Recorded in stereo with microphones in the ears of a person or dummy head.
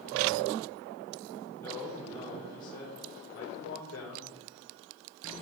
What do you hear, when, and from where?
1.6 s a man speaking: 10° left (ahead or behind), 0.9 m; by 4.2 s 65° left (ahead or behind), 1.5 m